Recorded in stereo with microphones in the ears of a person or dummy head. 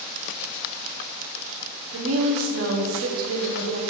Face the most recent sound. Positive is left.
turn(degrees=-75)  # may be behind; listen again after turning